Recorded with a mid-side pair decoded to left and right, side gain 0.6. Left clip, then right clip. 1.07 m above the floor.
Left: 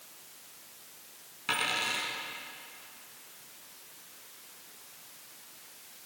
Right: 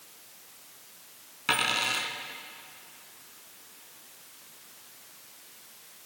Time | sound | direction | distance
1.5 | a dropped coin | 30° right | 3 m